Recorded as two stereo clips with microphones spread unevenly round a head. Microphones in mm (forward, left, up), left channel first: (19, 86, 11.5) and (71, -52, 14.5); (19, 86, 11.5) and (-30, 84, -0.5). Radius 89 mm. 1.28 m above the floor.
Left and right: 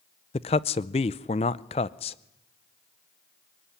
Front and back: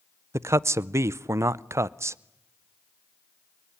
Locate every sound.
0.3 s a man speaking: 170° left, 0.6 m